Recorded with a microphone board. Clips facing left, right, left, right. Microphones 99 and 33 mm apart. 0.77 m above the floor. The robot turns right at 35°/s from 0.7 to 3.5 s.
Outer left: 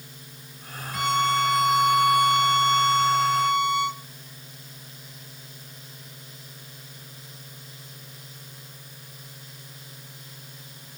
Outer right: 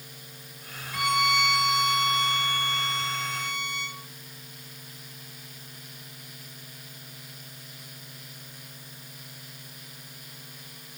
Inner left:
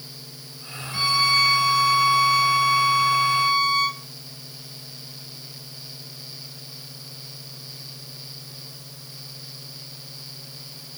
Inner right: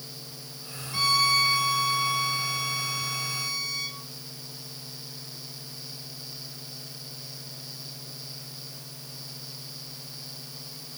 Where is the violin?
20° left, 1.3 m; by 4.0 s 110° left, 1.3 m.